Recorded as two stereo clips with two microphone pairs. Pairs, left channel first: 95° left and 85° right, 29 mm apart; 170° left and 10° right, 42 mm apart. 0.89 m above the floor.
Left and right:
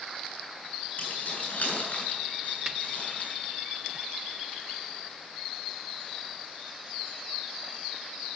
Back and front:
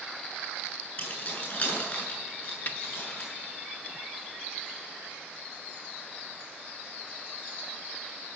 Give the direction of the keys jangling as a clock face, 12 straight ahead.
8 o'clock.